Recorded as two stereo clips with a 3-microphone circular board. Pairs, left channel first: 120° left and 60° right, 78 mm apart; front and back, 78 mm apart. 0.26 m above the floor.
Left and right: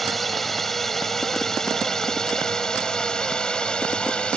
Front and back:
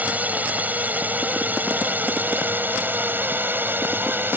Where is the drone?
155° right; by 4.4 s straight behind.